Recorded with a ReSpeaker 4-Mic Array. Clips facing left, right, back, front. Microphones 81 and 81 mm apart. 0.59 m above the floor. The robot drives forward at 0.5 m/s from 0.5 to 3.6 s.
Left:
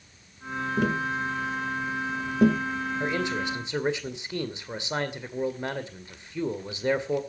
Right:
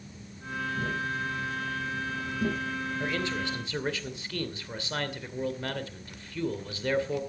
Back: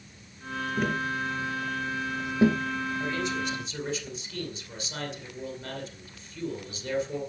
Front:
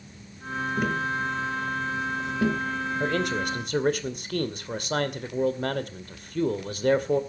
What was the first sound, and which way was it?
Tapping, 90° left.